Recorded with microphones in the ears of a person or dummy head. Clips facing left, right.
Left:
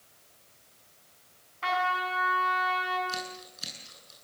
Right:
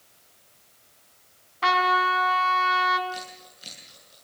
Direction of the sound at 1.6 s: 65° right (ahead or behind).